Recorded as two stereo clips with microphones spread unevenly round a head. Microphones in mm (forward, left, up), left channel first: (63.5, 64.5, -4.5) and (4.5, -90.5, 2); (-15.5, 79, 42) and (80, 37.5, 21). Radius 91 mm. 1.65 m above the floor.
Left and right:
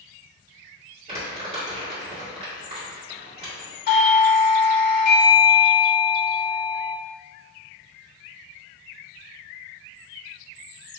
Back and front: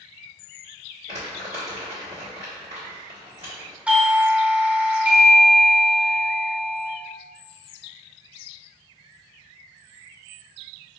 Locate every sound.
1.1 s crumpling: 70° right, 1.8 m
3.9 s a doorbell: 45° left, 0.9 m